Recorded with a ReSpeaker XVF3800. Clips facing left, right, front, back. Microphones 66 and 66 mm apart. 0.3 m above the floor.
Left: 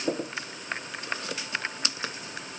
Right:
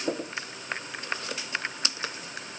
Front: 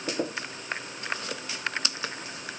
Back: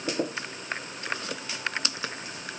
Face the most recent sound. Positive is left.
No sound to turn to.